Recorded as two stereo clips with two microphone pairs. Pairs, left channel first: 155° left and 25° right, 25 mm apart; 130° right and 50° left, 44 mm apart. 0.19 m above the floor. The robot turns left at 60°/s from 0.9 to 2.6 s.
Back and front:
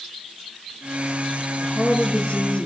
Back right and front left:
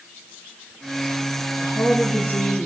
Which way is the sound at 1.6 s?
125° right.